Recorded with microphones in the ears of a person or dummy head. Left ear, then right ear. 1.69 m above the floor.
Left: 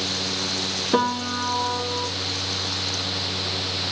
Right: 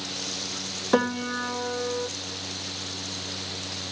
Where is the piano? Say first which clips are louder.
Left 1 dB; 65° right (ahead or behind), 1.9 m.